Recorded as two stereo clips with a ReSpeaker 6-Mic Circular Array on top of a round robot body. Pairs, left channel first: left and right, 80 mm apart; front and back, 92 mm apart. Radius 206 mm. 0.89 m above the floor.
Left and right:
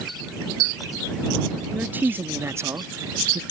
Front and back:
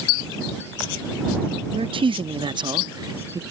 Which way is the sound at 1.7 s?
160° right.